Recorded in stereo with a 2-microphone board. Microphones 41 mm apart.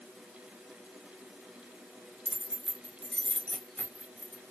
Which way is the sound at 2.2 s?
25° right (ahead or behind).